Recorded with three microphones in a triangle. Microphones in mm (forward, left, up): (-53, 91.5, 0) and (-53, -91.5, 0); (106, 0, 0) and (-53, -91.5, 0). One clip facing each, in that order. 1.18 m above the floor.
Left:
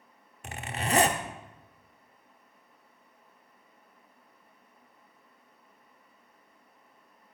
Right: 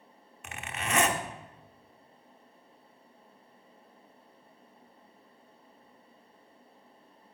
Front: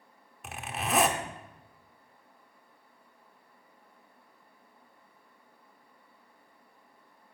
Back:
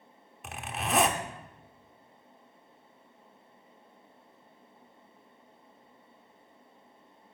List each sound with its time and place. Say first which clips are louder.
0.4 s a zipper: left 4 dB, even; 120° left, 0.9 m